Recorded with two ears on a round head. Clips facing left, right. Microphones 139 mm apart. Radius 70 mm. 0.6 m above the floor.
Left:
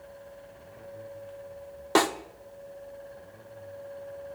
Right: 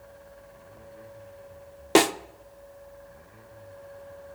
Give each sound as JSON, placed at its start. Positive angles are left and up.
{"t": 1.9, "sound": "a snare drum", "side_deg": -25, "distance_m": 0.6}